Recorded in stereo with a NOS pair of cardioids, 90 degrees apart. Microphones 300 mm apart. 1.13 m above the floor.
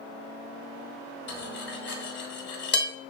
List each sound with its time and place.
1.3 s cutlery clinking: 35° left, 1.1 m